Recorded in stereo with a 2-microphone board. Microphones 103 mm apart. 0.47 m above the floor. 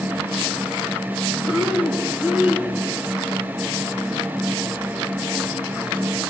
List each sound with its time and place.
1.4 s breathing: 10° right (ahead or behind), 1.0 m